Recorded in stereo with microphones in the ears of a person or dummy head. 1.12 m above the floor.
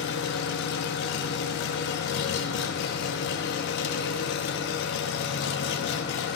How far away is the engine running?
About 1.0 m.